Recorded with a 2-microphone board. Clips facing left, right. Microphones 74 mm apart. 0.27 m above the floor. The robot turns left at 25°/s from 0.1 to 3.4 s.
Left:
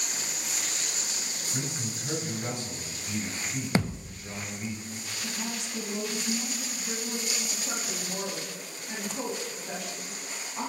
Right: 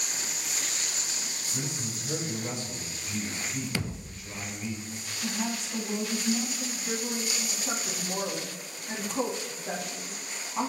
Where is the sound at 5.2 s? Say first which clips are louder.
Right 5 dB; 45° right (ahead or behind), 2 m.